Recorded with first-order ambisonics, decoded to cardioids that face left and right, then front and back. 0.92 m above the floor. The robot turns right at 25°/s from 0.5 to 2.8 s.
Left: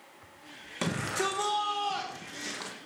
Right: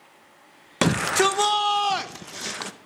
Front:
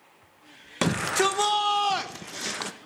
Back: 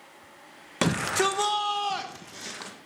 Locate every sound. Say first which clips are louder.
0.8 s a shout: right 10 dB, front 1 dB; 95° right, 0.8 m; by 2.7 s 50° right, 0.8 m